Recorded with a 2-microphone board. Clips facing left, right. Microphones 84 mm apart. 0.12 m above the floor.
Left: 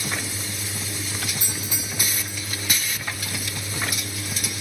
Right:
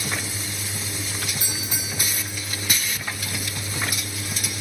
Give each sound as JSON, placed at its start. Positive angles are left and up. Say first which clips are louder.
{"t": 1.4, "sound": "a doorbell", "louder": "even", "side_deg": -35, "distance_m": 6.5}